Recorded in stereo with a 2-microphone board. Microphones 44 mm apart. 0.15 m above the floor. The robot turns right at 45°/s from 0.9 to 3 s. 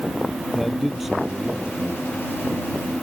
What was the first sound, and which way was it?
A man speaking, straight behind.